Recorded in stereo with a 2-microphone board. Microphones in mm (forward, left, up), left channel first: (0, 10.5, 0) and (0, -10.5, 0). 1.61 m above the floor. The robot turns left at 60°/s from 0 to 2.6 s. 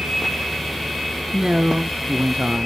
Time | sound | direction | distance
1.3 | a man speaking | 30° right | 0.6 m